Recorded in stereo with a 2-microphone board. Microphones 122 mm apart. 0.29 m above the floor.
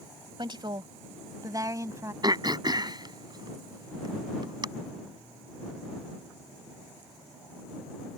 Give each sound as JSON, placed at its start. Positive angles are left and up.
{"t": 0.4, "sound": "a woman speaking", "side_deg": -40}
{"t": 2.2, "sound": "throat clearing", "side_deg": -35}